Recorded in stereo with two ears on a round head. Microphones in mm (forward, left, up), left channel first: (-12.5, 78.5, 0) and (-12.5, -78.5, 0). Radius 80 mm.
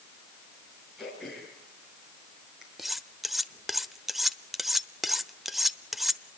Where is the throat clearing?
Centre (ahead or behind), 7.5 m.